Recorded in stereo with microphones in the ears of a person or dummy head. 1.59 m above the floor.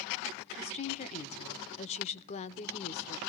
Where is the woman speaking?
35° left (ahead or behind), 1.0 m.